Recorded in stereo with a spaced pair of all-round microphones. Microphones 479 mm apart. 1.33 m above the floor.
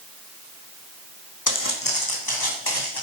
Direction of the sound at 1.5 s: 40° left (ahead or behind).